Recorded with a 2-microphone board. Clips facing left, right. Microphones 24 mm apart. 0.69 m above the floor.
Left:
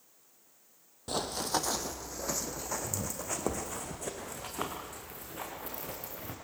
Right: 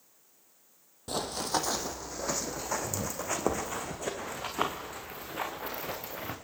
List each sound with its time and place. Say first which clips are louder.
1.1 s running footsteps: right 1 dB; 5° left (ahead or behind), 1.1 m; by 6.3 s 30° right (ahead or behind), 4 m